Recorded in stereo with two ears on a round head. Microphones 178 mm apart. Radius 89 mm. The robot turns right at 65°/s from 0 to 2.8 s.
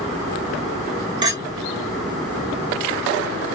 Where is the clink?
25° right (ahead or behind), 2 m; by 1.4 s 10° right (ahead or behind), 2 m.